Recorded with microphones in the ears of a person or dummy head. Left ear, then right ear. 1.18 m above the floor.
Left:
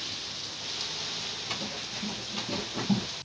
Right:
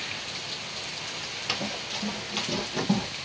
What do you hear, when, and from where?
1.5 s running footsteps: 35° right (ahead or behind), 1.5 m; by 3.0 s 20° right (ahead or behind), 2.5 m